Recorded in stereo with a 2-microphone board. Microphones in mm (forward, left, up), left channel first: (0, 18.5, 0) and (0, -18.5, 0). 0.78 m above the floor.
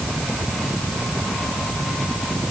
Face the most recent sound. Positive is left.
No sound to turn to.